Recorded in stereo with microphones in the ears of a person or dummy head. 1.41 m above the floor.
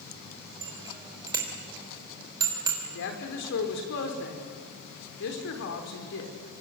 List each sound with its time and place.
0.6 s a bicycle bell: 25° right (ahead or behind), 3.5 m
2.8 s a woman speaking: 75° left (ahead or behind), 3.5 m